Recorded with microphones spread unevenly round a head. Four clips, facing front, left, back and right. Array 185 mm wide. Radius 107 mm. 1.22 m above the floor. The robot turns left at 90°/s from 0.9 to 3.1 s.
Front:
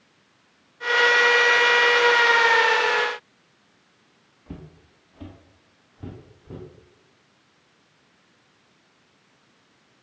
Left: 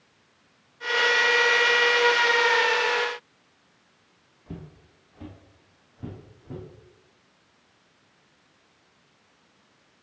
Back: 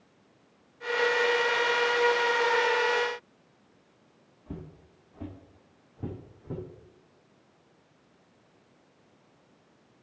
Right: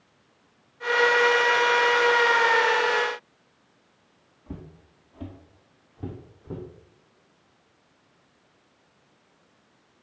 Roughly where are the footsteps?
Behind.